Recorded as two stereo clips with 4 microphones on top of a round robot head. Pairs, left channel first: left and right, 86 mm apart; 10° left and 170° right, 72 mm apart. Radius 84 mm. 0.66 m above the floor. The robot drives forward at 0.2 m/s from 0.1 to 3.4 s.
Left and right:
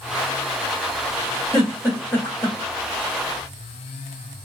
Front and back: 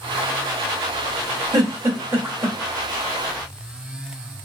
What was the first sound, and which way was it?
A giggle, 160° left.